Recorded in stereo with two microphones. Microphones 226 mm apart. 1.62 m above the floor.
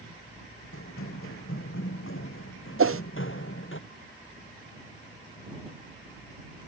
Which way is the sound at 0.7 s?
65° left (ahead or behind).